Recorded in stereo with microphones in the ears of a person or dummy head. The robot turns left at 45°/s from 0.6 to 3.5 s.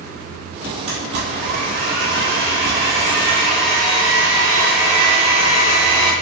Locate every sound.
0.9 s a blender: 60° right, 0.9 m; by 6.1 s straight behind, 0.9 m